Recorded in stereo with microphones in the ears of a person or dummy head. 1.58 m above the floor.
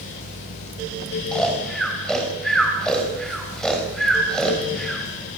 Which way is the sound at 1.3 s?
Centre (ahead or behind).